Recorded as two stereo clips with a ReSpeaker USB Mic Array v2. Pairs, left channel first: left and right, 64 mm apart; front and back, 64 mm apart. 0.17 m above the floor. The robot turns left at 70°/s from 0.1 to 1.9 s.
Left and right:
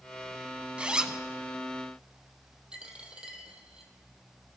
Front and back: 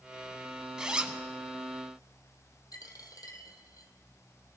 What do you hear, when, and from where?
0.8 s a zipper: 120° right, 0.8 m; by 1.2 s 150° right, 0.8 m
2.7 s a dropped coin: 15° right, 1.5 m